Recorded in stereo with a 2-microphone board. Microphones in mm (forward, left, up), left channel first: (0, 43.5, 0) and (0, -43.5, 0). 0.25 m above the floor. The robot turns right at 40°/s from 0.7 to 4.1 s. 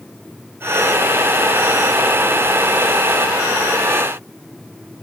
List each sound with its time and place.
Only background noise.